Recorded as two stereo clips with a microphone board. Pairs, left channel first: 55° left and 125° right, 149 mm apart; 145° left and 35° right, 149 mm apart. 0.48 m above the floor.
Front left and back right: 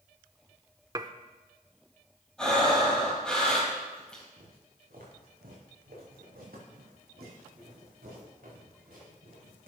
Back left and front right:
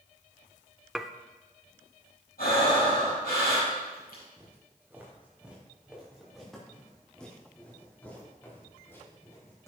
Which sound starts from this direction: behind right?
Dishes clattering, at 0.9 s.